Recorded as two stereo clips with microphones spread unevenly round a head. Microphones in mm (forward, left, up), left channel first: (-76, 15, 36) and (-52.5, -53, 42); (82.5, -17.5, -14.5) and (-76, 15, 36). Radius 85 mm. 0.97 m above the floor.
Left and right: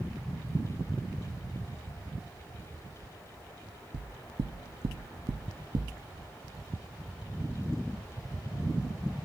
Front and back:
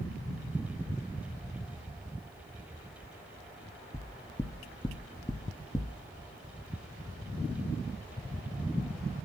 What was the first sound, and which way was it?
Knocking, 85° right.